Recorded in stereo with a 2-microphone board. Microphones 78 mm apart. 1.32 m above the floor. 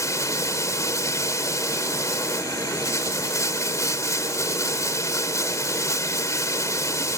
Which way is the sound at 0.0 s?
45° left (ahead or behind).